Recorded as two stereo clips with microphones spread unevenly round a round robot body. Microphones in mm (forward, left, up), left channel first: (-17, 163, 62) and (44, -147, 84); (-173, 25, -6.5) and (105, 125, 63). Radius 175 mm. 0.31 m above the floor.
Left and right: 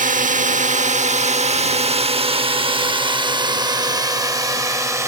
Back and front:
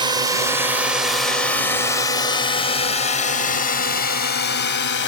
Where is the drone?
65° right; by 5.1 s 160° right.